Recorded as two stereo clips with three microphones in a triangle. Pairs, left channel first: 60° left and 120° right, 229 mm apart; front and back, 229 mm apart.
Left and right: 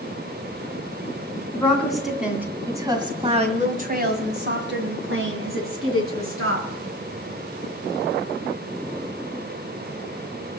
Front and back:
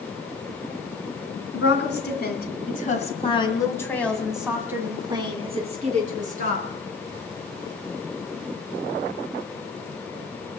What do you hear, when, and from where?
1.5 s a woman speaking: 25° right, 3 m; by 6.7 s 130° right, 3.5 m